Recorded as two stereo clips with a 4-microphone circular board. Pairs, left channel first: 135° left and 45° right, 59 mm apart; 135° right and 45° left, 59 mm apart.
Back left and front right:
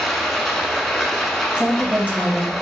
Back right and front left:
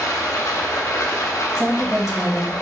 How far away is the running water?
About 0.8 m.